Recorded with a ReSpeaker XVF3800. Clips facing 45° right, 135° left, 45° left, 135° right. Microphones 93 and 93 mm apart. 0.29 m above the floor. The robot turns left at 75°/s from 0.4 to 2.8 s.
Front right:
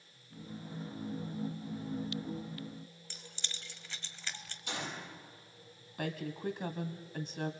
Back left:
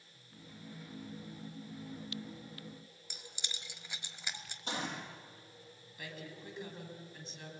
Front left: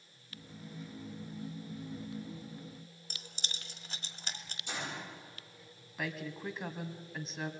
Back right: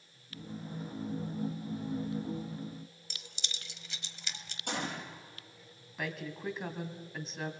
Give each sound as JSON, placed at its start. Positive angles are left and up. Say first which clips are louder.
{"t": 3.1, "sound": "keys jangling", "louder": "even, front left 1 dB", "azimuth_deg": 65, "distance_m": 1.3}
{"t": 4.7, "sound": "a gunshot", "louder": "back left 2 dB, back right 4 dB", "azimuth_deg": -170, "distance_m": 7.5}
{"t": 6.0, "sound": "a woman speaking", "louder": "front right 10 dB, back right 1 dB", "azimuth_deg": -45, "distance_m": 1.7}